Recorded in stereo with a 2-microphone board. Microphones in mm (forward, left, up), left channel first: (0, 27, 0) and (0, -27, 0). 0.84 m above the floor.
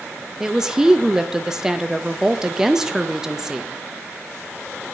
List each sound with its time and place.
0.4 s a woman speaking: 10° right (ahead or behind), 0.6 m